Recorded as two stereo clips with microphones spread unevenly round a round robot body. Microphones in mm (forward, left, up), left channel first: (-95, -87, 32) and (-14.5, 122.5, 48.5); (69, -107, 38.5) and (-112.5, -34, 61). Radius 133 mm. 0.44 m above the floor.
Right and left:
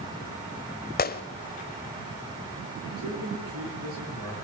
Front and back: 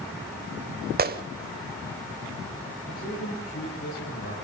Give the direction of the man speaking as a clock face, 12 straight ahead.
11 o'clock.